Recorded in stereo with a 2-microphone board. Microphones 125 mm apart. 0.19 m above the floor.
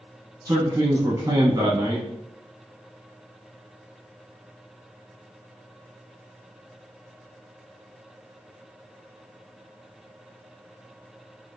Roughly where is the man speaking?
Right.